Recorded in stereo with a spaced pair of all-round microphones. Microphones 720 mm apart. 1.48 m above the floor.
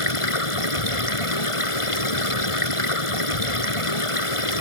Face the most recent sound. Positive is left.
turn(degrees=45)  # may be behind; listen again after turning